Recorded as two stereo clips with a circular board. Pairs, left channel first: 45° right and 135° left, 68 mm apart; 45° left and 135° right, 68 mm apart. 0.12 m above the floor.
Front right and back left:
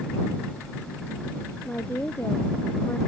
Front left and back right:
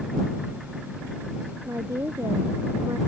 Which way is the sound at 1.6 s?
105° right.